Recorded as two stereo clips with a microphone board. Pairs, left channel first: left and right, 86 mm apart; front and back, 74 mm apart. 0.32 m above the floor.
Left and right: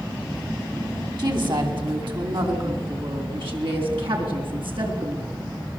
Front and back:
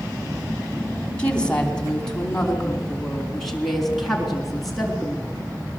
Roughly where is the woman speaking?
Right.